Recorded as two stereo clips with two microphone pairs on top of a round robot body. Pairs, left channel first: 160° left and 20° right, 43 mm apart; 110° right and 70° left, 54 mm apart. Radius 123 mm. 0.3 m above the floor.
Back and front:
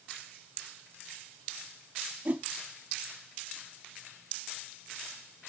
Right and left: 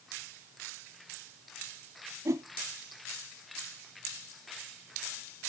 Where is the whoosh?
35° left, 0.7 m.